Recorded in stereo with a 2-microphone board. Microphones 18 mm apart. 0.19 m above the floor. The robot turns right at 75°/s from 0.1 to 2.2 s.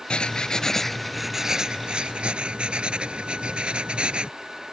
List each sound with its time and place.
0.1 s writing: 105° left; by 4.3 s 100° right